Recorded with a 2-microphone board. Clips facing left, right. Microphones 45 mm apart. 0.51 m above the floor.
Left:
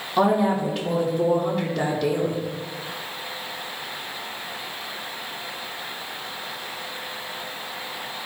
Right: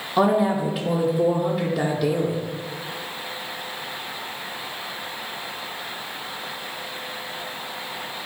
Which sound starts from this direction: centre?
A woman speaking, at 0.2 s.